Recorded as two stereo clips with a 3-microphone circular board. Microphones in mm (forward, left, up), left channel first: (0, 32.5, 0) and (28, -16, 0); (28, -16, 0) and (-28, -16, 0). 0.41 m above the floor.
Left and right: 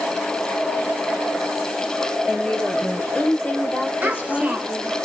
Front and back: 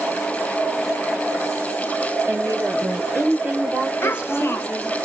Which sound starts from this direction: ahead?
A child speaking, at 4.0 s.